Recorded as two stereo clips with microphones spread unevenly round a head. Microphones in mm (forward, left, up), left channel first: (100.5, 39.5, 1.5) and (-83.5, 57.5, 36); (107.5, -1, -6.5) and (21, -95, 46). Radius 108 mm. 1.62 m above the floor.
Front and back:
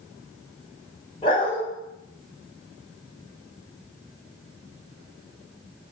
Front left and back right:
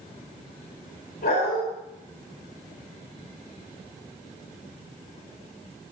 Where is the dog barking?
55° left, 2.5 m.